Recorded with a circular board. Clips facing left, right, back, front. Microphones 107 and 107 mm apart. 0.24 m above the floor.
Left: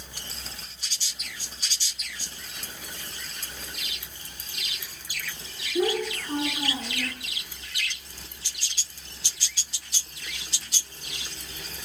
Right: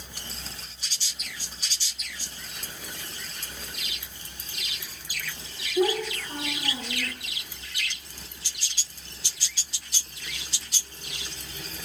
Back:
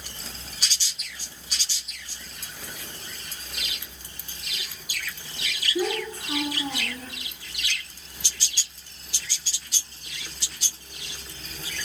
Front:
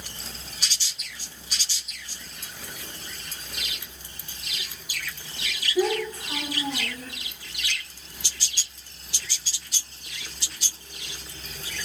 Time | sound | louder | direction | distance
5.8 | a child speaking | right 1 dB, front 3 dB | 115° left | 2.5 m